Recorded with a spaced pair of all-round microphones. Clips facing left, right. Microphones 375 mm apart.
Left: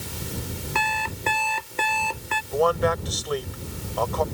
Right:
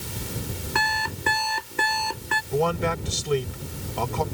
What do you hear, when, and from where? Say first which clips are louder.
0.8 s an alarm clock: even; 25° right (ahead or behind)
2.5 s a man speaking: left 2 dB; 40° right (ahead or behind)